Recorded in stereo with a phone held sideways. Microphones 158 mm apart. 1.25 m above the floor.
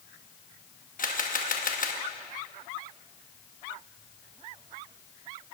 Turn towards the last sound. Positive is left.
turn(degrees=60)  # may be behind; listen again after turning